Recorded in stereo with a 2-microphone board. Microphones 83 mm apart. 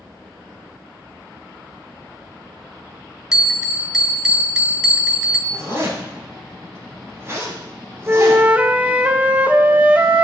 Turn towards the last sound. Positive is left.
turn(degrees=-20)  # may be behind; listen again after turning